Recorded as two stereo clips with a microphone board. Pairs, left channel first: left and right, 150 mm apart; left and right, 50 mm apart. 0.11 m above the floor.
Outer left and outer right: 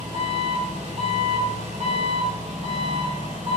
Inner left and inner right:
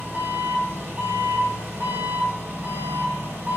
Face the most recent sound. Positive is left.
turn(degrees=-45)  # may be behind; listen again after turning